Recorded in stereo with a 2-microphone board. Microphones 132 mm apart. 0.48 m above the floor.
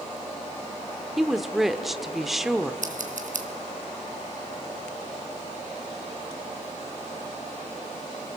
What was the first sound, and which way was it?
A woman speaking, centre (ahead or behind).